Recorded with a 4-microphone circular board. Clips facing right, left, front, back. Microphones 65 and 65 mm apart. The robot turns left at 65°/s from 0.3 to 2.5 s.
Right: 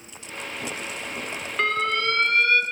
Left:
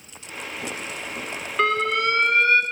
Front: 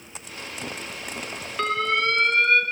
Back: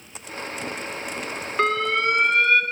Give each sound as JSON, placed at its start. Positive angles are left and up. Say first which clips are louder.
{"t": 1.6, "sound": "an alarm", "louder": "left 3 dB, back 2 dB", "azimuth_deg": 170, "distance_m": 0.7}